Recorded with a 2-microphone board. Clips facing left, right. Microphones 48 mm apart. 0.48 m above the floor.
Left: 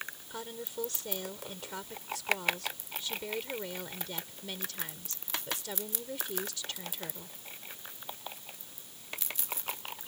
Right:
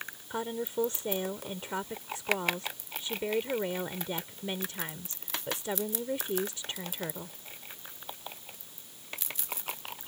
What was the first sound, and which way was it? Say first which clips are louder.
A woman speaking: right 10 dB; 25° right (ahead or behind).